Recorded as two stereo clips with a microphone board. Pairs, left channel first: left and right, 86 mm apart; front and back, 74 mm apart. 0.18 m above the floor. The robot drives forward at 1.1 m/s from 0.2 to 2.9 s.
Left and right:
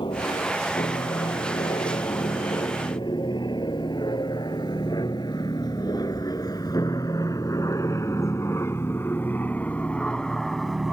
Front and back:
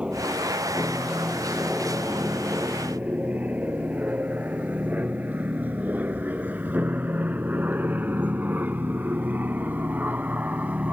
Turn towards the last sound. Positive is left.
turn(degrees=-170)